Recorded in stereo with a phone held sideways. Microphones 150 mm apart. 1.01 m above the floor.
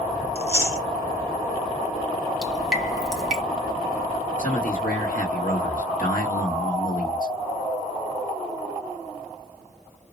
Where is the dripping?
Centre (ahead or behind), 1.3 m.